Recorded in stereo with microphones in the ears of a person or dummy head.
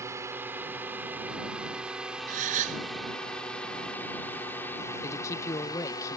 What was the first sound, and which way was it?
A drone, 10° right (ahead or behind).